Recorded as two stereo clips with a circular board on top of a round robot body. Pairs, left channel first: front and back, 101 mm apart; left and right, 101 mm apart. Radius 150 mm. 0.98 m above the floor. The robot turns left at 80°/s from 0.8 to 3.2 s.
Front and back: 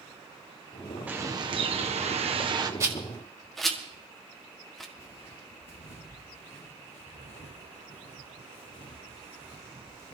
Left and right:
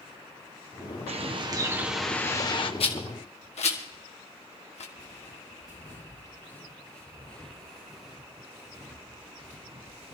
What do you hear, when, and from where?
1.1 s a bird: 105° right, 1.3 m; by 2.7 s 125° left, 1.3 m
2.8 s a rattle: 120° left, 1.6 m; by 4.8 s 90° left, 1.6 m
5.0 s footsteps: 35° left, 3.5 m; by 10.2 s 65° right, 2 m